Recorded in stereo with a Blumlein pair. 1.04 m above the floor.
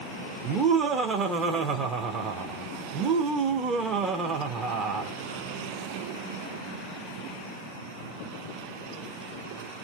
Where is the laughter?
20° right, 0.6 m.